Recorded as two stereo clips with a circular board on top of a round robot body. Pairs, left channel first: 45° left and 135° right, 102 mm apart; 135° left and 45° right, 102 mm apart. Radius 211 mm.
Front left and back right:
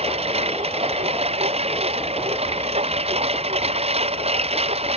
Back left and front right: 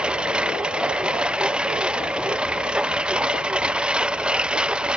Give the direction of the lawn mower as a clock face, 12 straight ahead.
4 o'clock.